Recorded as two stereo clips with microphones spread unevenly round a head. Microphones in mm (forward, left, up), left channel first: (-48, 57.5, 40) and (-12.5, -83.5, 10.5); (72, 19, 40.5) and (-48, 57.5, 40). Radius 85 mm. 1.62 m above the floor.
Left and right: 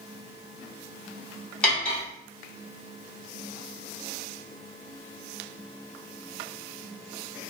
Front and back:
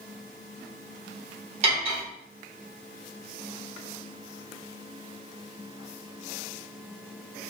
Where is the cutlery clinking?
170° left, 1.0 m.